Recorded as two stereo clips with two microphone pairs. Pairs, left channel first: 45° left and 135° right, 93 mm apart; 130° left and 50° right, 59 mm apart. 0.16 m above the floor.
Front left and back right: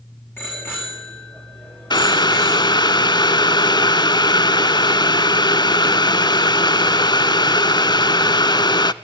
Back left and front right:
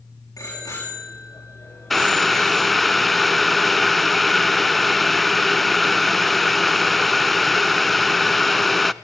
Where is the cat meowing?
I don't hear a cat meowing.